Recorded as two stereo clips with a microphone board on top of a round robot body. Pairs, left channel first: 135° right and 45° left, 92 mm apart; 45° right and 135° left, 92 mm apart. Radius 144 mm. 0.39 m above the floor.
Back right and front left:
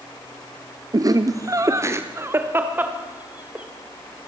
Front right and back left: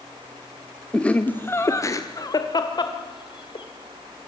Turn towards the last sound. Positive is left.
turn(degrees=-30)